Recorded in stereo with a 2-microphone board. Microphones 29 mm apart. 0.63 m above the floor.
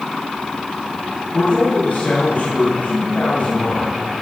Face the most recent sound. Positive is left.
turn(degrees=55)  # may be behind; listen again after turning